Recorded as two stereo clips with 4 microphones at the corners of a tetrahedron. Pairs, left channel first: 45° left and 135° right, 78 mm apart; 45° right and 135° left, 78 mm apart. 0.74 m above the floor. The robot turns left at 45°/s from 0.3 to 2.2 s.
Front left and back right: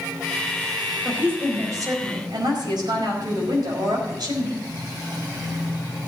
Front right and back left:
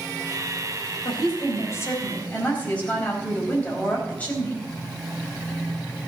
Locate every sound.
1.1 s a woman speaking: 60° right, 4.5 m; by 4.7 s 115° right, 4.5 m